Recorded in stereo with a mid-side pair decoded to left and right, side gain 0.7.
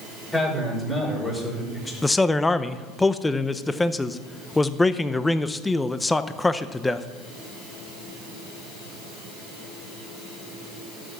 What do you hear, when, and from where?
0.3 s a man speaking: 20° left, 5.5 m
2.0 s a man speaking: 10° left, 0.7 m